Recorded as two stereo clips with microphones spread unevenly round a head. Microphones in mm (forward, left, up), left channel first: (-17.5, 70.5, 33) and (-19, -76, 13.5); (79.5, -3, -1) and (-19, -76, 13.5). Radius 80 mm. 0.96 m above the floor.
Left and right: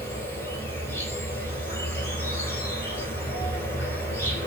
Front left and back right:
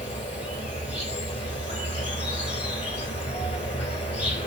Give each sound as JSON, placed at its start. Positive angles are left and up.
{"t": 0.0, "sound": "an insect", "azimuth_deg": 20, "distance_m": 1.5}